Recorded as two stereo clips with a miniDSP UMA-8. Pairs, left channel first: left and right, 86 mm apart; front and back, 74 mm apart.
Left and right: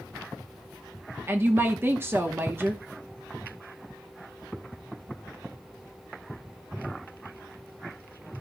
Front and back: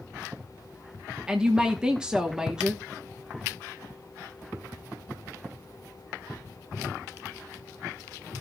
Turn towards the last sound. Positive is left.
turn(degrees=-110)